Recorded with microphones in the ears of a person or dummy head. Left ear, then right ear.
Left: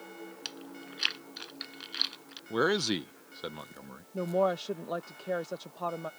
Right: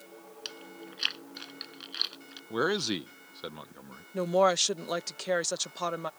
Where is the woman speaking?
60° right (ahead or behind).